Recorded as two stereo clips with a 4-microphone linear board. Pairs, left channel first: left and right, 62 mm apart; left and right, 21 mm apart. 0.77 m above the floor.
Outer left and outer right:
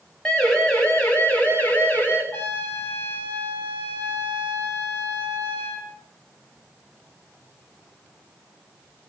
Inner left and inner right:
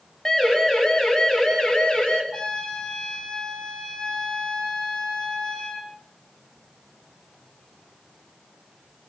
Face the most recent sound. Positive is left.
turn(degrees=30)  # may be behind; listen again after turning